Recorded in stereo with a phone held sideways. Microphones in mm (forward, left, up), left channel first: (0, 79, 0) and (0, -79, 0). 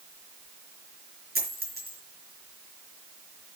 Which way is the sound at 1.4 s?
80° right.